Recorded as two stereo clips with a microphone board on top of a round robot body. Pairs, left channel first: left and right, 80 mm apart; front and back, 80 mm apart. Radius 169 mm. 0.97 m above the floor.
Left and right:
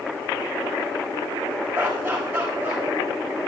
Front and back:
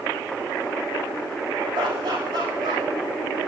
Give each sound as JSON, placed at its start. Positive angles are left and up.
{"t": 1.7, "sound": "laughter", "azimuth_deg": -155, "distance_m": 7.0}